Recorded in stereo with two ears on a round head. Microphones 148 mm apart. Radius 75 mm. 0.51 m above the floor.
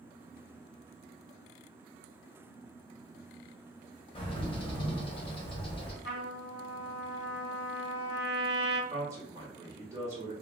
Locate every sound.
4.2 s a bird: 35° left (ahead or behind), 1.0 m
6.0 s a trumpet: 65° left (ahead or behind), 1.4 m
8.9 s a man speaking: 20° right (ahead or behind), 1.5 m